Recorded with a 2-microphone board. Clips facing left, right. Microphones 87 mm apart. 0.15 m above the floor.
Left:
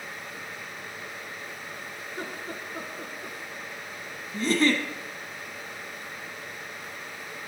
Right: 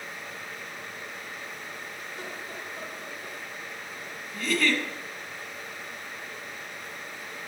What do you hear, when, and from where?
2.0 s laughter: 45° left (ahead or behind), 2.5 m
4.3 s a giggle: 30° left (ahead or behind), 1.1 m